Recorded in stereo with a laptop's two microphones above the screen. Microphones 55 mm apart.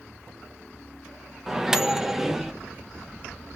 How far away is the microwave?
About 0.5 m.